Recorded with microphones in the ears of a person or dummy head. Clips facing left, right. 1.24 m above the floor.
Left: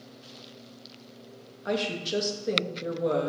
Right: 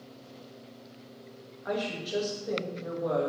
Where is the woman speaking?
35° left (ahead or behind), 1.7 m.